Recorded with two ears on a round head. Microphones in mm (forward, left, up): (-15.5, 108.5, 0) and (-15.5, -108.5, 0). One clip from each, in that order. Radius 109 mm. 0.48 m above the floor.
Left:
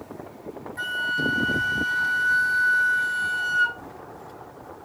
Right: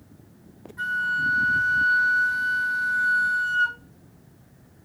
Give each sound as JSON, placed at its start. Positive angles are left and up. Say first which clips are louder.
{"t": 0.8, "sound": "a flute", "louder": "right 1 dB", "side_deg": 70, "distance_m": 2.5}